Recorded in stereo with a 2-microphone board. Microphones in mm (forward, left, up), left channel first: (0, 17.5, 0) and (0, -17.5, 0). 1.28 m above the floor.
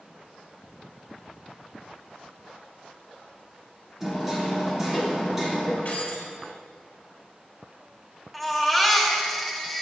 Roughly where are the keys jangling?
Left.